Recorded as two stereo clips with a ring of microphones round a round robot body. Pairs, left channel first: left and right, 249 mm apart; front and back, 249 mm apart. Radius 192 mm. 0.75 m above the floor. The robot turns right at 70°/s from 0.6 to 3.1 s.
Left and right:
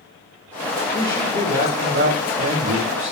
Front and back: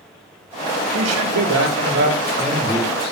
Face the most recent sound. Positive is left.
turn(degrees=-50)